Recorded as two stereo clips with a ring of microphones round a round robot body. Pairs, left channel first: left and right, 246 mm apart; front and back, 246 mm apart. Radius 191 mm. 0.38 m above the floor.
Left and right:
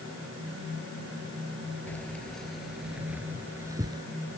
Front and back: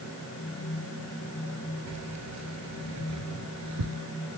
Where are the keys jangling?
175° left; by 4.0 s 165° right.